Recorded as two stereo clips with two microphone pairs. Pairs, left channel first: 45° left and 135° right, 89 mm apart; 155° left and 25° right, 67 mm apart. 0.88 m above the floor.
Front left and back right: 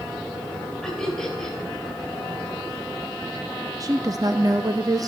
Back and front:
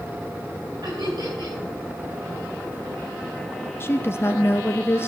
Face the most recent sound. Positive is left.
turn(degrees=-165)